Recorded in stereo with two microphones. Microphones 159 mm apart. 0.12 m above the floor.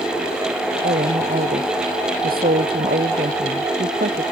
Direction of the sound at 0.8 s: 70° right (ahead or behind).